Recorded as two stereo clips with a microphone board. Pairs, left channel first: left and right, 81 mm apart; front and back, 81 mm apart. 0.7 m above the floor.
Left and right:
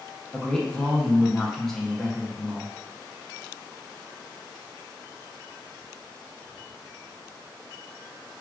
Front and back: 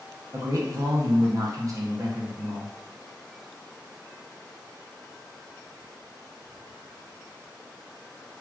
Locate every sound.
0.3 s a man speaking: 170° left, 0.6 m